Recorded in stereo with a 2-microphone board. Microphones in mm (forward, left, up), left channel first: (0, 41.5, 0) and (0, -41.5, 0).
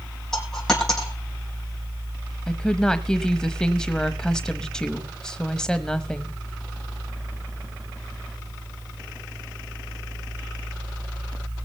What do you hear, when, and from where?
0.3 s a dropped coin: 5° left (ahead or behind), 4.5 m
2.5 s a woman speaking: 10° left (ahead or behind), 1.0 m